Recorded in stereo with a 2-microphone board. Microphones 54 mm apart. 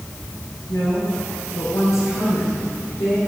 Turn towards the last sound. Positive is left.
turn(degrees=60)  # may be behind; listen again after turning